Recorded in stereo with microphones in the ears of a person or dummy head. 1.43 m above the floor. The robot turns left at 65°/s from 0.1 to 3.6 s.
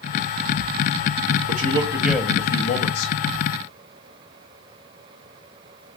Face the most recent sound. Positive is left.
turn(degrees=85)